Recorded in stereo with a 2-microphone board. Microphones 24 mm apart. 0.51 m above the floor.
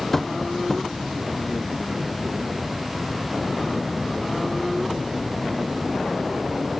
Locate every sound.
0.1 s tapping: 10° left (ahead or behind), 1.1 m